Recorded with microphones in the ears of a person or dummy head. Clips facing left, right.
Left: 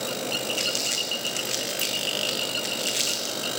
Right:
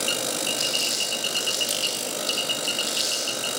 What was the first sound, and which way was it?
Crumpling, 40° left (ahead or behind).